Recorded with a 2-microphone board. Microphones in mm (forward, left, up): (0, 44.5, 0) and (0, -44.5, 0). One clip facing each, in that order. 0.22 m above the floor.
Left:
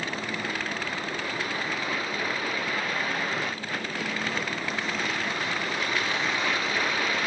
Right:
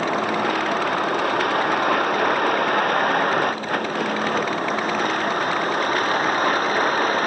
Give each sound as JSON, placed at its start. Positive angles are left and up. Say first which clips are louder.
{"t": 0.0, "sound": "a vehicle", "louder": "right 11 dB", "side_deg": -65}